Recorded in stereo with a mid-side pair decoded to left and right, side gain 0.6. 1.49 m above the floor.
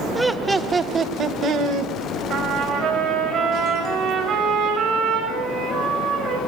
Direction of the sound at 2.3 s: 55° right.